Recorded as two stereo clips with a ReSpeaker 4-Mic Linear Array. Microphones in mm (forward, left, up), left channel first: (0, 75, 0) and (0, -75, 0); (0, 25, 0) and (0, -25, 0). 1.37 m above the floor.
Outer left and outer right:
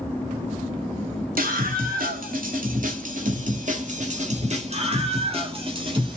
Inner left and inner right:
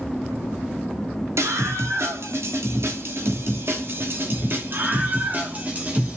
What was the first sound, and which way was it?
A scream, 85° right.